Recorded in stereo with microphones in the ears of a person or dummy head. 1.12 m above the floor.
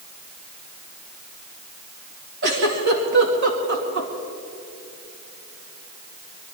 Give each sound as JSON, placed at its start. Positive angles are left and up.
{"t": 2.4, "sound": "a giggle", "side_deg": -60, "distance_m": 2.5}